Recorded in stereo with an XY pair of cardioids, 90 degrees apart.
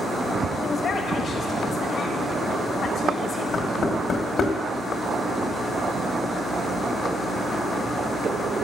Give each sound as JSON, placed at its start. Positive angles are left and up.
{"t": 0.6, "sound": "a man speaking", "azimuth_deg": 65, "distance_m": 1.3}
{"t": 3.5, "sound": "knocking", "azimuth_deg": 65, "distance_m": 1.5}